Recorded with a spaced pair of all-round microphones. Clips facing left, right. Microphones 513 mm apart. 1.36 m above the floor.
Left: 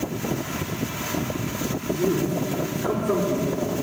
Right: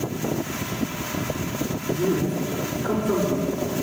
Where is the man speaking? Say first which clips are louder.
Even; 15° right (ahead or behind), 4.5 m.